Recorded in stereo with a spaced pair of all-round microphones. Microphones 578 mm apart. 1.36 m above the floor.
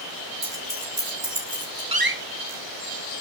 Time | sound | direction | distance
0.4 | keys jangling | 50° right (ahead or behind) | 4 m
1.9 | a door slam | 40° right (ahead or behind) | 1.4 m